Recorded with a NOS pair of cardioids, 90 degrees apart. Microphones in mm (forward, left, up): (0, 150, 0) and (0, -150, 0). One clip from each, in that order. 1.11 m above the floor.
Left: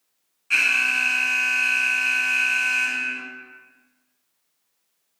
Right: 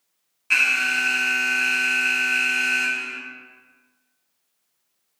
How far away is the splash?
No splash in this recording.